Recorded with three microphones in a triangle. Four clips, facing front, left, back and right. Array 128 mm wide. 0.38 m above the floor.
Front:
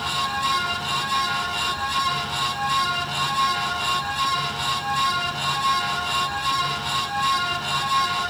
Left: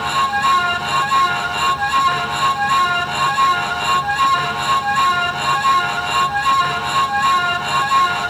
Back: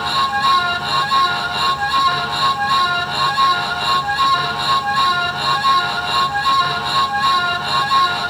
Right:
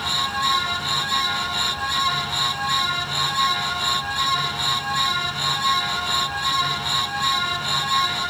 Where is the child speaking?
I don't hear a child speaking.